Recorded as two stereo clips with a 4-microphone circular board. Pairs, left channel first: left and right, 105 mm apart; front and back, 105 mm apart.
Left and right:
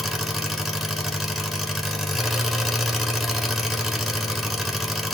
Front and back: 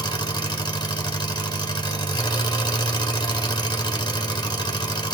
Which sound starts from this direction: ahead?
An engine running, at 0.0 s.